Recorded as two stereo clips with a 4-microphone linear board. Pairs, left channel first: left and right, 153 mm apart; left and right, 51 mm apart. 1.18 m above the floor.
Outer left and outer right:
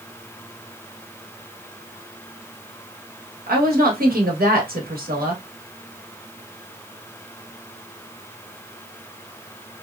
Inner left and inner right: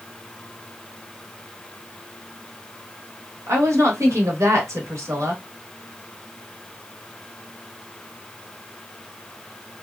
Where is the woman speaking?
80° right, 1.0 m.